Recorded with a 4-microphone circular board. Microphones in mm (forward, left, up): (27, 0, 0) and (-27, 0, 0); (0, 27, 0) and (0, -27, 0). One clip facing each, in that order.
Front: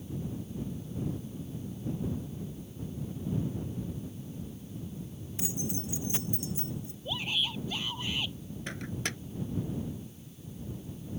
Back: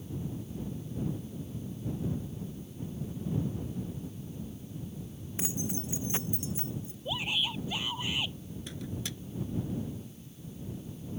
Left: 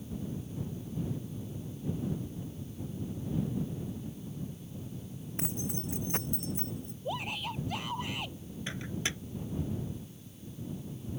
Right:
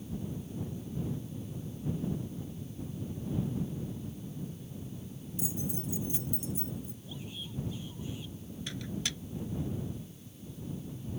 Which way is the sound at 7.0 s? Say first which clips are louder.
Back 1 dB, left 8 dB; 105° left.